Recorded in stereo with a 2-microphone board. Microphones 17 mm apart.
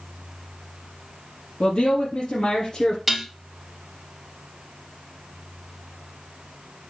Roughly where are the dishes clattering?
Centre.